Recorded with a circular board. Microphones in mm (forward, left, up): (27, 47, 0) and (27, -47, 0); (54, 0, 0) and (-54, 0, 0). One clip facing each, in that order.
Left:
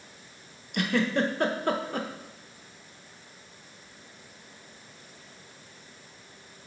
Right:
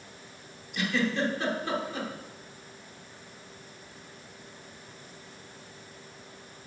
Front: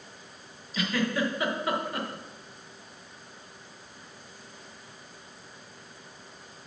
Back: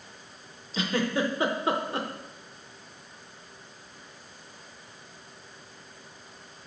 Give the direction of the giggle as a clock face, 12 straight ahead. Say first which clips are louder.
Left 2 dB, back 1 dB; 8 o'clock.